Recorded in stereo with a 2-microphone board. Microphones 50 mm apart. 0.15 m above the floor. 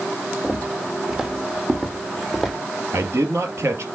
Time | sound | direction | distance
0.4 | footsteps | 20° right (ahead or behind) | 3 m
2.9 | a man speaking | 65° right (ahead or behind) | 3 m